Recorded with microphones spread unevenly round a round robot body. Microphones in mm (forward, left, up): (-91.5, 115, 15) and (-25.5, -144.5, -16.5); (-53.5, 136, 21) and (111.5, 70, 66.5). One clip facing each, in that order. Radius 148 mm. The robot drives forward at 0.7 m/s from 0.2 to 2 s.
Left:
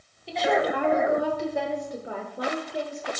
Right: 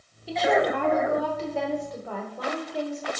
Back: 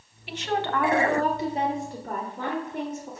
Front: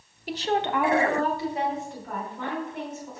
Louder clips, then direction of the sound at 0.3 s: Right 1 dB, front 2 dB; 5° right.